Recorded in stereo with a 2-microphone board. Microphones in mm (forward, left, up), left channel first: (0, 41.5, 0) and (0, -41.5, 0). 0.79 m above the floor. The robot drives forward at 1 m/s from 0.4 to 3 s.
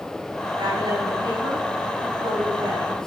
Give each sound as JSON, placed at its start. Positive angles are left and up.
{"t": 0.6, "sound": "a woman speaking", "side_deg": -70, "distance_m": 8.0}